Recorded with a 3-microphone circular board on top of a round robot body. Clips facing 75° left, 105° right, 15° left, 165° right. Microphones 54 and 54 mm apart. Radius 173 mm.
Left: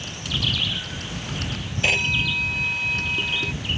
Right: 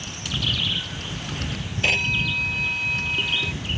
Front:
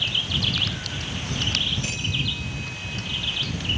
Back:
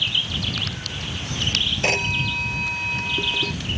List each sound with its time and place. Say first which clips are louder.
1.8 s a phone ringing: left 1 dB, back 6 dB; 165° left